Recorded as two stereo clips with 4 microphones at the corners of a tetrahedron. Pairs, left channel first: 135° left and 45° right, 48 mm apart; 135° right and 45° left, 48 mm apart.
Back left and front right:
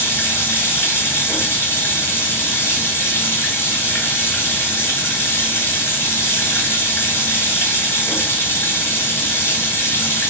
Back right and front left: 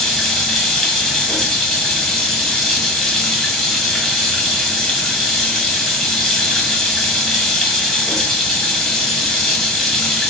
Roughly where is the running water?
Behind left.